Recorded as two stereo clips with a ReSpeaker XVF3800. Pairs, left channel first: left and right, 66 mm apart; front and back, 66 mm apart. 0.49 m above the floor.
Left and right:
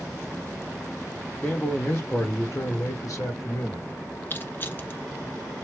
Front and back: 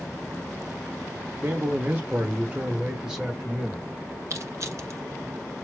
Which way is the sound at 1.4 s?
150° left.